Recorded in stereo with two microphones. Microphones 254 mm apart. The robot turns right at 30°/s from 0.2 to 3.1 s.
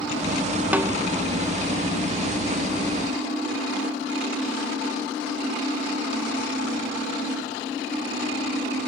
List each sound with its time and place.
0.7 s a snare drum: 5° right (ahead or behind), 0.6 m; by 0.9 s 10° right (ahead or behind), 0.6 m